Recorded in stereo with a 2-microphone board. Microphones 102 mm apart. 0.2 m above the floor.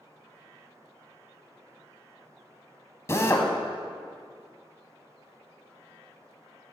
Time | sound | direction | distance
3.1 | a drill | 30° left (ahead or behind) | 0.9 m